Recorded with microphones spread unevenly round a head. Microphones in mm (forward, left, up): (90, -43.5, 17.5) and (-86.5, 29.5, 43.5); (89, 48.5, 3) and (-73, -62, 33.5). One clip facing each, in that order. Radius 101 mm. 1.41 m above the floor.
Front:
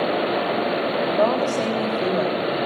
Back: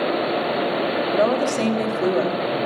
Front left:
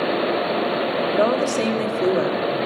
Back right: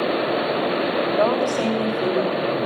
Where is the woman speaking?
95° left, 3 m.